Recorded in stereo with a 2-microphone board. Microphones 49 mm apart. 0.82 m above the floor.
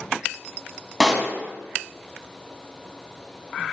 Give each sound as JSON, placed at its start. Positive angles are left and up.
{"t": 1.0, "sound": "a pop", "side_deg": -10, "distance_m": 1.1}